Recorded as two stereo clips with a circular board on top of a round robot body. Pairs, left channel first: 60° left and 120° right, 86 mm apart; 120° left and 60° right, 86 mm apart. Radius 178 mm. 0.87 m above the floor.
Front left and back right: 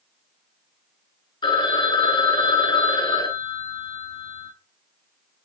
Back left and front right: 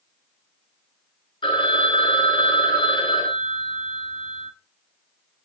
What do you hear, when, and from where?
1.4 s a phone ringing: 85° left, 3.5 m